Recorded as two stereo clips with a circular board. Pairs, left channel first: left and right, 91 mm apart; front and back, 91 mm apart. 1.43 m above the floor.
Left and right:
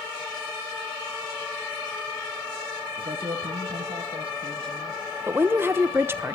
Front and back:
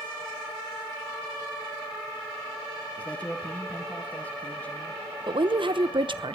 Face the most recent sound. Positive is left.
turn(degrees=-155)